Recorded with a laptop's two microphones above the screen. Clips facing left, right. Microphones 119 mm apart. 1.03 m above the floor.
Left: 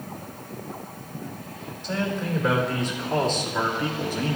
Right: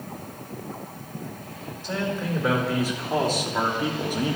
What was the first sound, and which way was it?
A man speaking, 5° right (ahead or behind).